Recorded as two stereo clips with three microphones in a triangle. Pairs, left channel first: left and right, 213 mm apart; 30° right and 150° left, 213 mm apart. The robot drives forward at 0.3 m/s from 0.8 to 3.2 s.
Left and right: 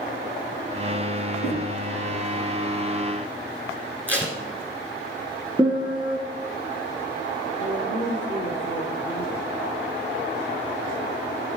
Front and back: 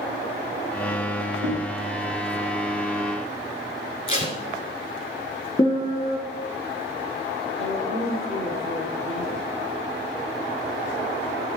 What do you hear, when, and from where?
1.4 s knocking: 125° left, 4 m; by 1.6 s 130° left, 4 m
4.1 s tape being pulled: 10° left, 1.7 m
5.6 s a piano: 15° right, 1.6 m
7.6 s a woman speaking: 90° left, 3.5 m